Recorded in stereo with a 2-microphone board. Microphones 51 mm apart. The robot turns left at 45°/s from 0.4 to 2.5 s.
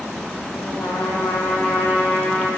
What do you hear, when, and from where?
0.6 s a trumpet: 120° left, 8 m; by 2.5 s 35° left, 8 m